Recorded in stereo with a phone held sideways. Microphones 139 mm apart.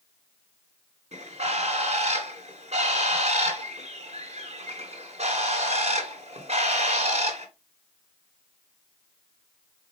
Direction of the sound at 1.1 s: 55° right (ahead or behind).